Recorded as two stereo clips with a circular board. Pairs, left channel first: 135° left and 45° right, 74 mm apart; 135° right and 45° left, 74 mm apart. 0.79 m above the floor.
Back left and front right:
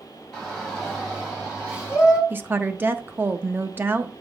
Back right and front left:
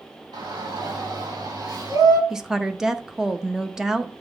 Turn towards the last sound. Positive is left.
turn(degrees=-30)